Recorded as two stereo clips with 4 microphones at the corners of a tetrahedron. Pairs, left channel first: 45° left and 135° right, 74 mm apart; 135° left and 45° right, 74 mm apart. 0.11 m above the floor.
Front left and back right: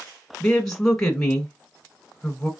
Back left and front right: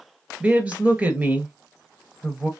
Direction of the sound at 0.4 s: 25° right.